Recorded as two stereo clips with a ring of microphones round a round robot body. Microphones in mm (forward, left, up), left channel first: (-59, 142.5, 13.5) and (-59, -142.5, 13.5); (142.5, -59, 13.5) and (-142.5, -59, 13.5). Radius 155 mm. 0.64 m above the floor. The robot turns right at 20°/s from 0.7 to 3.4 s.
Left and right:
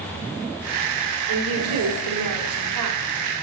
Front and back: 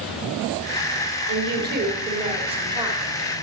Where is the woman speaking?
135° right, 2.5 m; by 3.0 s 100° right, 2.5 m.